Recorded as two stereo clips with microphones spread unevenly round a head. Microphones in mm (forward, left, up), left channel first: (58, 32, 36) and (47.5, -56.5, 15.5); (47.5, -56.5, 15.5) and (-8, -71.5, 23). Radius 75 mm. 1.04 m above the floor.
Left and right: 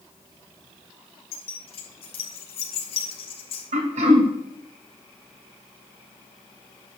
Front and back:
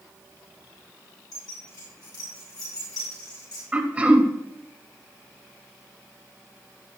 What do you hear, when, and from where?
1.3 s keys jangling: 70° left, 3 m
3.7 s throat clearing: 100° right, 2 m